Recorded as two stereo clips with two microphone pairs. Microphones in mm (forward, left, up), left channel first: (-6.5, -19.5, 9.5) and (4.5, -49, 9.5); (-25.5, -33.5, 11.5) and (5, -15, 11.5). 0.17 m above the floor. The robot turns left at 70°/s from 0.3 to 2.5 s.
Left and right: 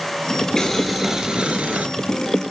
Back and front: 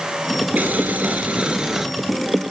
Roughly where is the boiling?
Ahead left.